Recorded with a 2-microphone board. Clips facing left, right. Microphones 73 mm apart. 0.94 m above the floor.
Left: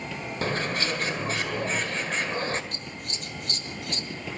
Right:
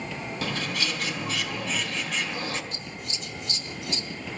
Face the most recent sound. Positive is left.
turn(degrees=50)  # may be behind; listen again after turning